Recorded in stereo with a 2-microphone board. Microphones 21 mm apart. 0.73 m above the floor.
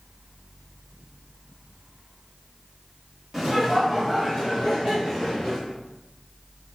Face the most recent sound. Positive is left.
turn(degrees=10)  # may be behind; listen again after turning